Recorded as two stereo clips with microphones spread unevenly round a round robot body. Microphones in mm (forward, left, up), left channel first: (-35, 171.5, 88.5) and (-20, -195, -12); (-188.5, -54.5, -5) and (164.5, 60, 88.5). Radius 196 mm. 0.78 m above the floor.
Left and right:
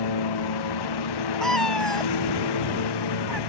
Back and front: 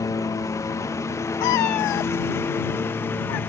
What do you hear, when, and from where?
0.0 s a lawn mower: 115° left
1.4 s a cat meowing: straight behind